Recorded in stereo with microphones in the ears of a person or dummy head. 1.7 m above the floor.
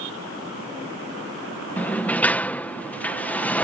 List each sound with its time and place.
1.8 s a sliding door: centre (ahead or behind)